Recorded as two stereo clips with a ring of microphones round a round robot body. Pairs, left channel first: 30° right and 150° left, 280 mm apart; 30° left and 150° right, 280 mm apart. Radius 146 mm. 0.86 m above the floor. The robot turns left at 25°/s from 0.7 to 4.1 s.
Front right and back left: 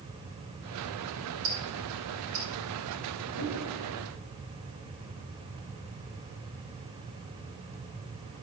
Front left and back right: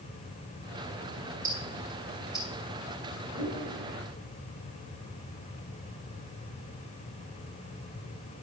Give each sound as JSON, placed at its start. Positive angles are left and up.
{"t": 1.4, "sound": "ticking", "azimuth_deg": 145, "distance_m": 3.5}
{"t": 3.4, "sound": "a whoosh", "azimuth_deg": -30, "distance_m": 4.0}